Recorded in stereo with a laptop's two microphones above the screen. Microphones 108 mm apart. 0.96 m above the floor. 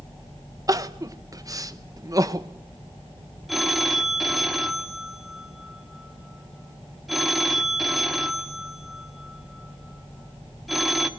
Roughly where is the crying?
Right.